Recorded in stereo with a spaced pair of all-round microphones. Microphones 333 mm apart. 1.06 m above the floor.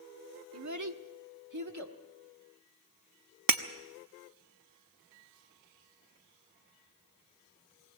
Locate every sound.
0.5 s a child speaking: 45° right (ahead or behind), 1.2 m; by 2.0 s 50° right (ahead or behind), 1.8 m
3.5 s breaking glass: 75° right (ahead or behind), 0.8 m